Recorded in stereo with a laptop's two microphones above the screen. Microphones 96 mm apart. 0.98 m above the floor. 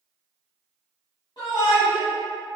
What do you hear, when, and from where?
1.4 s a shout: 50° left (ahead or behind), 0.9 m